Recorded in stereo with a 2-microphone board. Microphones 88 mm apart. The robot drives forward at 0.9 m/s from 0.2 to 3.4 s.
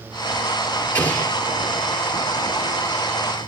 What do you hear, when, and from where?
0.9 s an explosion: 15° left (ahead or behind), 4 m